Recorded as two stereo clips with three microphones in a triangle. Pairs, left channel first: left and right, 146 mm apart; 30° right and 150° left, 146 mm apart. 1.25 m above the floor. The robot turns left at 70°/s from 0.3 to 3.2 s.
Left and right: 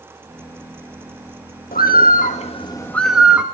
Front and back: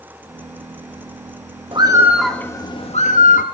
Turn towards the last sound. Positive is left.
turn(degrees=-5)